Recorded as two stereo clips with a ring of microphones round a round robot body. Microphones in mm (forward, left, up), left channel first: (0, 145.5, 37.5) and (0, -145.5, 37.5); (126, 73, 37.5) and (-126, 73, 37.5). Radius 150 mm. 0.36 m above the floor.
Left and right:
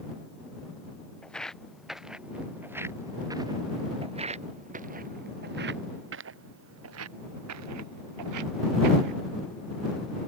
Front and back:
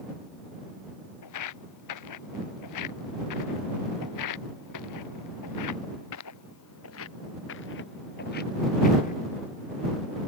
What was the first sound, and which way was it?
Footsteps, 5° left.